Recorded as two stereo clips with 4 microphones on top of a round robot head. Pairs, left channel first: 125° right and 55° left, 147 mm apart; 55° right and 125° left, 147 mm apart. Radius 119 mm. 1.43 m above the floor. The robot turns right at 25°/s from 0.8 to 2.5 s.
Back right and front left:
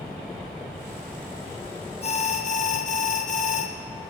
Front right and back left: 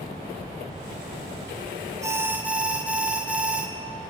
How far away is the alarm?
About 1.7 m.